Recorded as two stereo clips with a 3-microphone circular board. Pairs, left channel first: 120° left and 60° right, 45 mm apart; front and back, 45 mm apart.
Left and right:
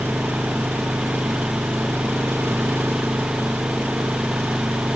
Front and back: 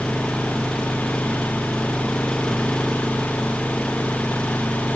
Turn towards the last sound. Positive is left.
turn(degrees=-80)